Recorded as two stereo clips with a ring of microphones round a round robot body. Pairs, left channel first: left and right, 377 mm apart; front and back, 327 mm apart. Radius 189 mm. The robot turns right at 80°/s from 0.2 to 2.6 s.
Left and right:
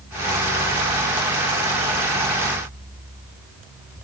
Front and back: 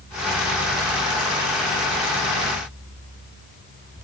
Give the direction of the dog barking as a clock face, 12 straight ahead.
I don't hear a dog barking.